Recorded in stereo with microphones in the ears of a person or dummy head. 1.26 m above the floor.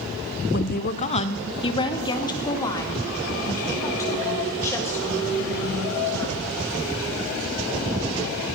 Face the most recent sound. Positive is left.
turn(degrees=15)  # may be behind; listen again after turning